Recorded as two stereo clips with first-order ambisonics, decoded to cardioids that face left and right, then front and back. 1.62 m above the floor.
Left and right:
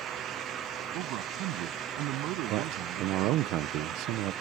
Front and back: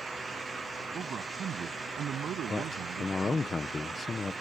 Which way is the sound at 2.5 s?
70° right.